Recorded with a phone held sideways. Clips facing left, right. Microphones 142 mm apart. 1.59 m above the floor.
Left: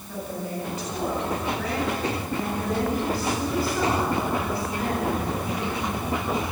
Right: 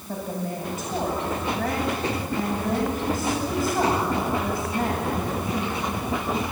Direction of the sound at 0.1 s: 45° right (ahead or behind).